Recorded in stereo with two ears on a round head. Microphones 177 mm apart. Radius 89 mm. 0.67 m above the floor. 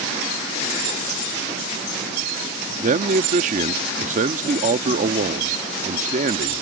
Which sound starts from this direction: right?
A man speaking, at 2.8 s.